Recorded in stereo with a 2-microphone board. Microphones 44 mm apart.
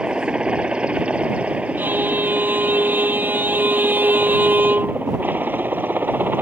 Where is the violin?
50° right (ahead or behind).